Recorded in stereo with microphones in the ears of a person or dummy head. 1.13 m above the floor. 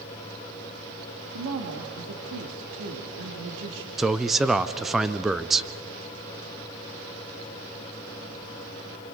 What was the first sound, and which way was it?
A woman speaking, 70° right (ahead or behind).